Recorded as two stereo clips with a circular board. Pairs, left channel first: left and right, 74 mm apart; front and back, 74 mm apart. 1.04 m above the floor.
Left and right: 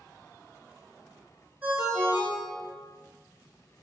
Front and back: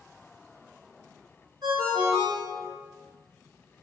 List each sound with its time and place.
1.6 s a ringtone: 160° right, 1.6 m